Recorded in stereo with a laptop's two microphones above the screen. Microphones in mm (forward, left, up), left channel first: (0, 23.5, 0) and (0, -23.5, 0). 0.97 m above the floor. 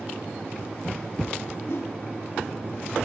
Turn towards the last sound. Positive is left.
turn(degrees=60)  # may be behind; listen again after turning